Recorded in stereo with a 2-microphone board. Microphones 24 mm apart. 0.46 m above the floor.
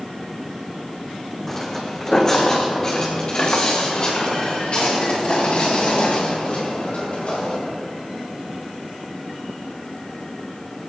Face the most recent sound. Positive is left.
turn(degrees=60)  # may be behind; listen again after turning